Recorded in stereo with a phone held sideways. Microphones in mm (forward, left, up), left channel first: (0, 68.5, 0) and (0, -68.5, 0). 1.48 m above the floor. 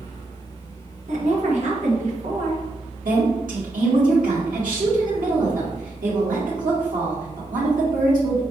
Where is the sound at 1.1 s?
60° right (ahead or behind), 1.2 m.